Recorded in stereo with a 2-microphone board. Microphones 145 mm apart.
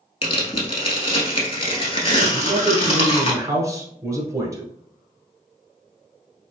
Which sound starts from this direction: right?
A man speaking, at 2.3 s.